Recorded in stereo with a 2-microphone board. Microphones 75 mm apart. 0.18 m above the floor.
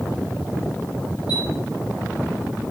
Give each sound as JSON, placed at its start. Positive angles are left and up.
{"t": 1.3, "sound": "a chime", "side_deg": 75, "distance_m": 7.5}